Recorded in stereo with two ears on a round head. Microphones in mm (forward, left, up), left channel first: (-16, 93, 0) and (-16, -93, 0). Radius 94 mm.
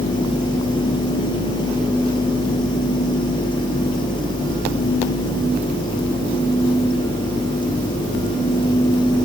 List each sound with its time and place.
Only background noise.